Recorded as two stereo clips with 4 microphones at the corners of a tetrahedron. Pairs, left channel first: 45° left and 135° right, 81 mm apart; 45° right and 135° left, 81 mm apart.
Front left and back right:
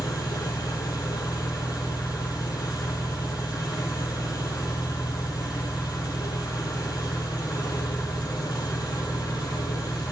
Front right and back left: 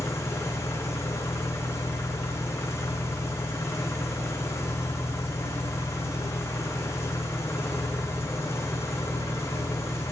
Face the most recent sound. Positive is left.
turn(degrees=10)